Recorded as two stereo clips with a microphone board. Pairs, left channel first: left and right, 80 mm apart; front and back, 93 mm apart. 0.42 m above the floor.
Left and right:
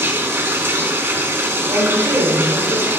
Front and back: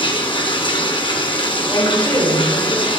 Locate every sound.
0.0 s running water: 30° right, 1.5 m
1.7 s a woman speaking: 60° right, 5.5 m